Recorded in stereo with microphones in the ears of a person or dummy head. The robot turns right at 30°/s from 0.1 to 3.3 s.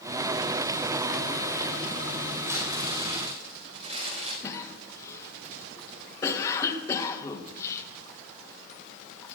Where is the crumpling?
10° right (ahead or behind), 4.5 m; by 4.3 s 40° right (ahead or behind), 4.5 m.